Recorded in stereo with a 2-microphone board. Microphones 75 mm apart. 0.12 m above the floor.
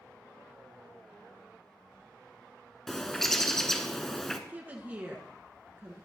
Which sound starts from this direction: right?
A woman speaking, at 4.5 s.